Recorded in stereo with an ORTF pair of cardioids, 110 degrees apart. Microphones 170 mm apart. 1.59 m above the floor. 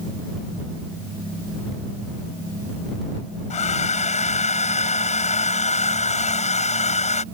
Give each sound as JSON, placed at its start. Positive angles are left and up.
{"t": 3.5, "sound": "a hair dryer", "azimuth_deg": 45}